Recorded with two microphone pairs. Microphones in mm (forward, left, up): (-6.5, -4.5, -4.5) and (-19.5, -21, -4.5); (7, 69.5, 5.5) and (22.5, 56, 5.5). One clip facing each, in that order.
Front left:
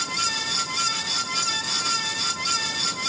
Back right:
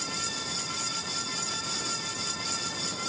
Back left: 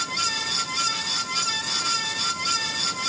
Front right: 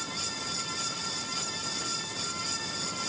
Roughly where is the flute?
I don't hear a flute.